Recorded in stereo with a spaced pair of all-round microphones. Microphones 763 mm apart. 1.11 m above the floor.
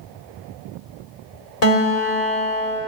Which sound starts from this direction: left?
A guitar, at 1.6 s.